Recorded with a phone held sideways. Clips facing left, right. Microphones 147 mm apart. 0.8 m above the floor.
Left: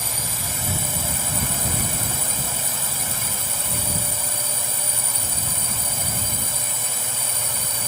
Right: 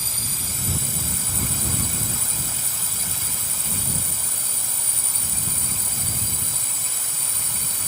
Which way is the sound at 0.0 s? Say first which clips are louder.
Left 5 dB; 75° left (ahead or behind).